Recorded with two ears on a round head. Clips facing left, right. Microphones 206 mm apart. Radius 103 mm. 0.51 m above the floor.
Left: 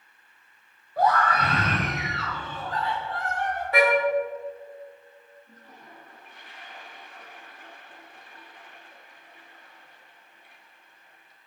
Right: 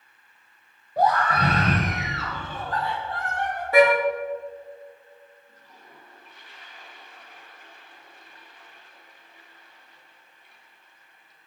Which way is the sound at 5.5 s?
45° left (ahead or behind).